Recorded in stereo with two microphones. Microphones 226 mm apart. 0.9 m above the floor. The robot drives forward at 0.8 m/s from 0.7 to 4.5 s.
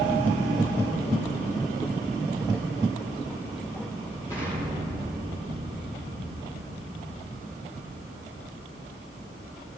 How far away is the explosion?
About 5 m.